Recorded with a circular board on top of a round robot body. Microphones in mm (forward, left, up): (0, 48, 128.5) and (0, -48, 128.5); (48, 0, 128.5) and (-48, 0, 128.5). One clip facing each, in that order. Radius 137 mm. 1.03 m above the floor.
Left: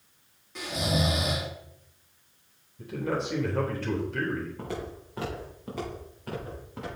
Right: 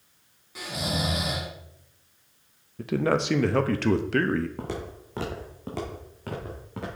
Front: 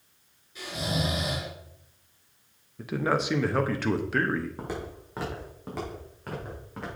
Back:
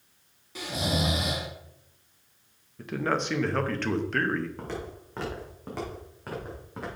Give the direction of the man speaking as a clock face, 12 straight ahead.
3 o'clock.